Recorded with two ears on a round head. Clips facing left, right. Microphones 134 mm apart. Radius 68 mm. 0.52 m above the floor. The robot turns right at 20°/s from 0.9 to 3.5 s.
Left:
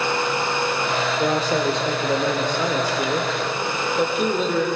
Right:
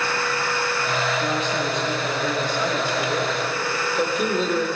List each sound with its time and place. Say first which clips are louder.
1.2 s a man speaking: left 4 dB; 130° left, 2 m; by 4.7 s 175° left, 2 m